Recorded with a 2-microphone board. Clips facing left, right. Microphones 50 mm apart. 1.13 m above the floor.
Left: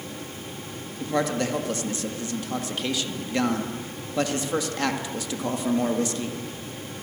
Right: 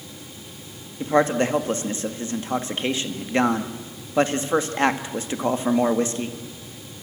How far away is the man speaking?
About 2.0 m.